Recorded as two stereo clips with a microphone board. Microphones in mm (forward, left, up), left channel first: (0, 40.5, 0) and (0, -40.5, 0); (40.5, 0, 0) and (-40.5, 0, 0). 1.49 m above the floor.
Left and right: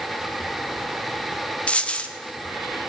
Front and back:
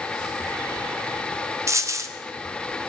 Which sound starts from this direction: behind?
A dropped coin, at 1.7 s.